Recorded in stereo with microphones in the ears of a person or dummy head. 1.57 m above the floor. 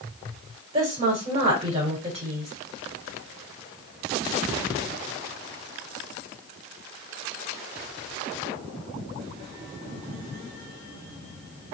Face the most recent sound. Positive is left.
turn(degrees=-35)  # may be behind; listen again after turning